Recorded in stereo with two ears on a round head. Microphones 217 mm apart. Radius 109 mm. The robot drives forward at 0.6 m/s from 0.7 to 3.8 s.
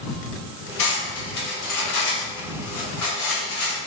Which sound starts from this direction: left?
Cutlery clinking, at 0.8 s.